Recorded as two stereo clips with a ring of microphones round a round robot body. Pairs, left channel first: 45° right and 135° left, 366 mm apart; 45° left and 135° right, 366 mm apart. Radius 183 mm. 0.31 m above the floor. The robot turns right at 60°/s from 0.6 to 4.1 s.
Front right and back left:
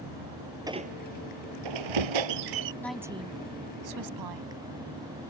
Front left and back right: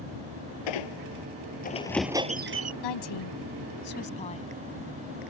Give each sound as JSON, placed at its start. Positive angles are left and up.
{"t": 0.7, "sound": "a squeak", "azimuth_deg": 55}
{"t": 2.8, "sound": "a woman speaking", "azimuth_deg": 40}